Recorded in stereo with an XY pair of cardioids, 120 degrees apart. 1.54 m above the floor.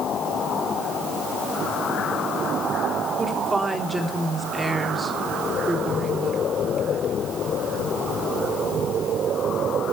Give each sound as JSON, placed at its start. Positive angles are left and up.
{"t": 3.2, "sound": "a woman speaking", "azimuth_deg": -15, "distance_m": 3.5}